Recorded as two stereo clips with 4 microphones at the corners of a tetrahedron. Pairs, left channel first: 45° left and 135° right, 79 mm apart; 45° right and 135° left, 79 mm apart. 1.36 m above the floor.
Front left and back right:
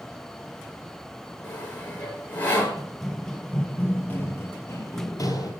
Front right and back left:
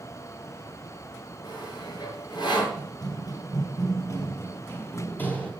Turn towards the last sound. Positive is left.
turn(degrees=25)